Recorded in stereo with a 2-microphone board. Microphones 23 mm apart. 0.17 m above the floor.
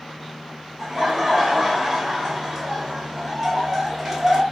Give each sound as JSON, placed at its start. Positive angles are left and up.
{"t": 0.8, "sound": "laughter", "side_deg": -10, "distance_m": 1.2}